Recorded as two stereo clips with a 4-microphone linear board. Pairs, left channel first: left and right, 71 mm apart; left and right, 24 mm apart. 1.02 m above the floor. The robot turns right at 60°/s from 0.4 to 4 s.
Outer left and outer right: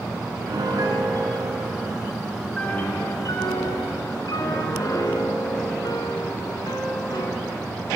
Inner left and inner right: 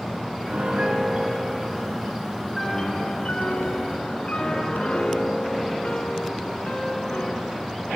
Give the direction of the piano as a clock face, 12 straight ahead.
4 o'clock.